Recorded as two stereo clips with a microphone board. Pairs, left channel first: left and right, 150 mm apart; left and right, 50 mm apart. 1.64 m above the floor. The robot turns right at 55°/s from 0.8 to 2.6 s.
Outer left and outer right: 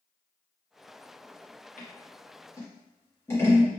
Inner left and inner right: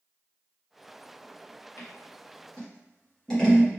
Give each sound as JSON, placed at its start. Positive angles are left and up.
{"t": 1.8, "sound": "scissors", "side_deg": 60, "distance_m": 1.2}